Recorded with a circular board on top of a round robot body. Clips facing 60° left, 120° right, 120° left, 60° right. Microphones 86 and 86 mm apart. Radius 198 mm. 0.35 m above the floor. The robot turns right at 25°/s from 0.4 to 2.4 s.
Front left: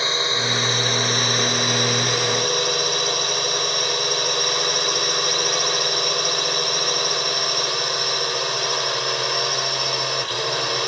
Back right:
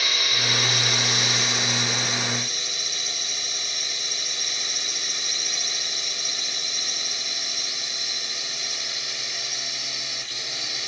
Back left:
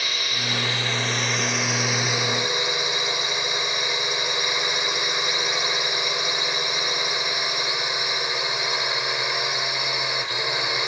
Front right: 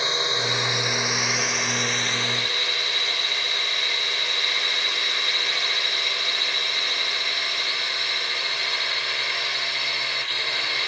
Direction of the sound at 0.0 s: Straight ahead.